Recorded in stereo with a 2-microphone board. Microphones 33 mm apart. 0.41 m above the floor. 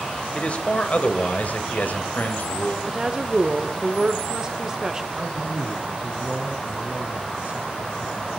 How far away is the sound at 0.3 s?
About 1.5 m.